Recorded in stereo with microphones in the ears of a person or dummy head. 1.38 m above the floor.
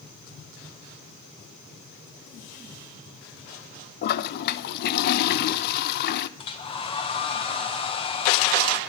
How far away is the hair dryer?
About 1.3 m.